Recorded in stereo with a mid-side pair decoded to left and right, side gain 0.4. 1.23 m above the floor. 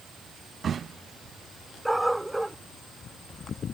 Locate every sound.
1.9 s a dog barking: 10° right